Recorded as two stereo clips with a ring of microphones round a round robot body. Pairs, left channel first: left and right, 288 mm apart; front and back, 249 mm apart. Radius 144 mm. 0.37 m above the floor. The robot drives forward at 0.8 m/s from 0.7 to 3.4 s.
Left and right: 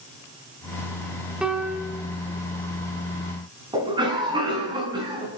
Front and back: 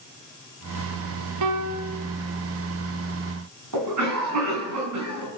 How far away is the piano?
About 1.1 m.